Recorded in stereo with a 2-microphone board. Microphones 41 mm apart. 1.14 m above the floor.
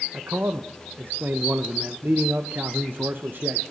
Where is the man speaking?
55° right (ahead or behind), 0.5 m.